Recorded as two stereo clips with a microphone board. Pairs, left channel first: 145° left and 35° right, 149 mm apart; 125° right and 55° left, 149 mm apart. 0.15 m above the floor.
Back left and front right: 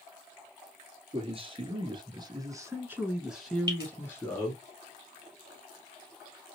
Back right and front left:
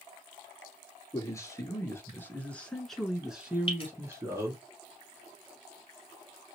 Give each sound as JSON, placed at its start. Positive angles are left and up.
{"t": 1.1, "sound": "a man speaking", "azimuth_deg": -65, "distance_m": 1.5}
{"t": 3.7, "sound": "dripping", "azimuth_deg": -85, "distance_m": 2.5}